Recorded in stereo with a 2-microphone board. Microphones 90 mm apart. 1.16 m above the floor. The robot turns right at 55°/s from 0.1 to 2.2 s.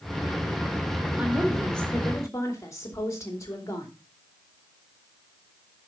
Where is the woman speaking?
20° right, 3 m; by 3.9 s 35° left, 3 m.